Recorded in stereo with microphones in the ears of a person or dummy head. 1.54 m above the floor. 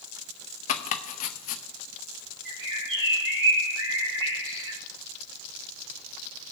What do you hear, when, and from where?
0.7 s chopping: 45° left (ahead or behind), 0.7 m
2.5 s a bird: 60° right (ahead or behind), 2 m